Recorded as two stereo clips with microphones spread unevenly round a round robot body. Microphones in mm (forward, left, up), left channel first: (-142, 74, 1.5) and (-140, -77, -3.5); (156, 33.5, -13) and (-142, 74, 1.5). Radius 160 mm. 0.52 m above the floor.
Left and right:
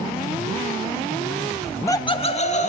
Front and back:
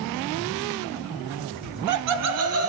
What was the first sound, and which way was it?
Laughter, 175° right.